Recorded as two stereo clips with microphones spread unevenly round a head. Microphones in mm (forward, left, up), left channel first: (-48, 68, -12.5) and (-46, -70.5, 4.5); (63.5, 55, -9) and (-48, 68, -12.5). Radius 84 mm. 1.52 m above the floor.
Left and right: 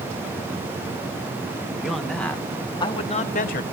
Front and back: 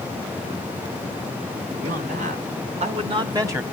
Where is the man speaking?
Straight behind, 2.5 m; by 3.6 s 105° left, 1.6 m.